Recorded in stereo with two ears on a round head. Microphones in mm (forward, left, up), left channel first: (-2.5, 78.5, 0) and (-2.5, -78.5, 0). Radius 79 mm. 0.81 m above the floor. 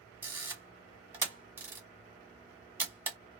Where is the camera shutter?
10° right (ahead or behind), 1.3 m.